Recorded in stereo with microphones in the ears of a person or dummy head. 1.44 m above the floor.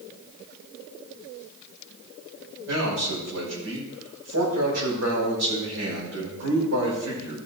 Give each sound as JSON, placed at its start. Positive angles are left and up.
{"t": 2.7, "sound": "a man speaking", "side_deg": -65, "distance_m": 5.5}